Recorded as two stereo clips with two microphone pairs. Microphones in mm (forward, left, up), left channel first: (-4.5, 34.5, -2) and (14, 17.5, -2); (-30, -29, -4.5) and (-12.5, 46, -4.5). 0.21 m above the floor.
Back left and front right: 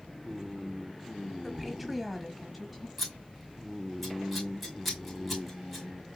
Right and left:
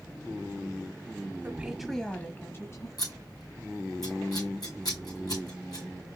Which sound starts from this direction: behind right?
Scissors, at 3.0 s.